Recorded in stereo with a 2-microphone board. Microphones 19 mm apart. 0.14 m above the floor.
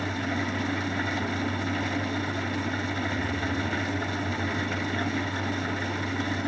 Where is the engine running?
Centre (ahead or behind), 0.7 m.